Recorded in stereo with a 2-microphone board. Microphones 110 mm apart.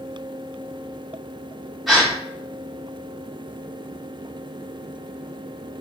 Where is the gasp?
Centre (ahead or behind), 1.2 m.